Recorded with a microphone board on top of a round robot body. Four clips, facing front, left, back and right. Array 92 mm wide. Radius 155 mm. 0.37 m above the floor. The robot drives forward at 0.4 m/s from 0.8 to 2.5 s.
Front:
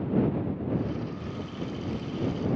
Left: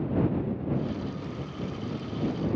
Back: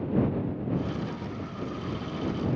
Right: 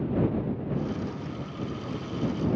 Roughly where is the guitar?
I don't hear a guitar.